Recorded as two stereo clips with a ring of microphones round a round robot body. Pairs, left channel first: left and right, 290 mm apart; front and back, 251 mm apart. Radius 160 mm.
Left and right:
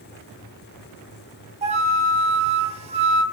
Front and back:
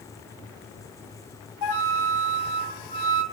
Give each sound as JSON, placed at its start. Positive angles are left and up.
{"t": 1.6, "sound": "a flute", "azimuth_deg": -20, "distance_m": 1.8}